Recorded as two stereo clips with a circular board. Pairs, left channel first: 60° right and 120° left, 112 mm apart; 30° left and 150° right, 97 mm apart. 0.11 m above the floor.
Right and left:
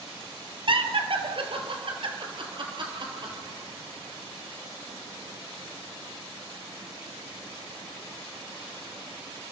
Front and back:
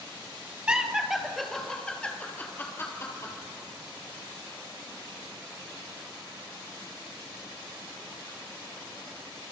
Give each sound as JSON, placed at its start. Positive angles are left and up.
{"t": 0.7, "sound": "laughter", "azimuth_deg": 135, "distance_m": 2.5}